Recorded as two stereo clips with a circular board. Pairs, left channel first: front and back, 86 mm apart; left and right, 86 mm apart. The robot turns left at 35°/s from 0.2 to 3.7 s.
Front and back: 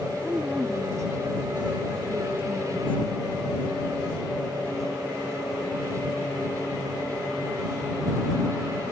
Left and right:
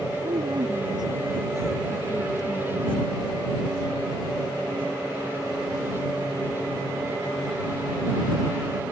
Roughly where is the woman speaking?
Right.